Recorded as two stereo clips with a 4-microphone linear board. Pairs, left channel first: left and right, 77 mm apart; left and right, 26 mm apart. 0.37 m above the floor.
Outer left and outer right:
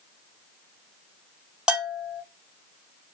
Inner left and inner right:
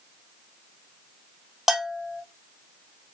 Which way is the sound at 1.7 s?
10° right (ahead or behind).